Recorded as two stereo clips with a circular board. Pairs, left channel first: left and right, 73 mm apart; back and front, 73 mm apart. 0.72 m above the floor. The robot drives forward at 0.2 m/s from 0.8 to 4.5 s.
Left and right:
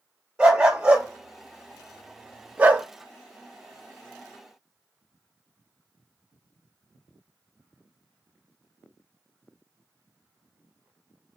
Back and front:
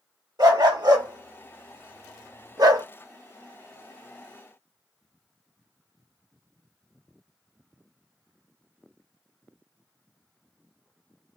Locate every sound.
0.4 s a dog barking: 15° right, 0.9 m; by 2.9 s 25° right, 0.5 m